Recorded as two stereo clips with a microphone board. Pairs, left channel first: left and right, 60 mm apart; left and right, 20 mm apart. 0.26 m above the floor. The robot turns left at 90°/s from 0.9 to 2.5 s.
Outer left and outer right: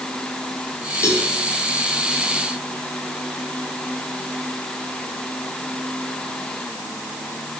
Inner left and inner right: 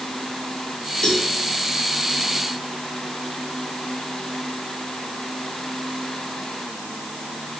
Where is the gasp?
I don't hear a gasp.